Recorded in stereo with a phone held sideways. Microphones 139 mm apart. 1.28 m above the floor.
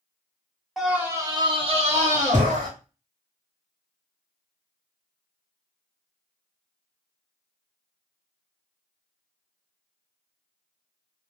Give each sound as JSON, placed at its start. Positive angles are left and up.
{"t": 0.8, "sound": "a scream", "side_deg": 0, "distance_m": 1.2}